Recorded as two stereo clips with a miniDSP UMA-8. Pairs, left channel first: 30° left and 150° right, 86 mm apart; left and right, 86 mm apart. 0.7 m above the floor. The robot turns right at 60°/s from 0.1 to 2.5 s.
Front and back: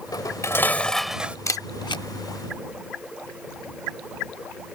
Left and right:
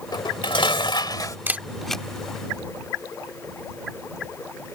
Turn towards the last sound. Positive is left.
turn(degrees=40)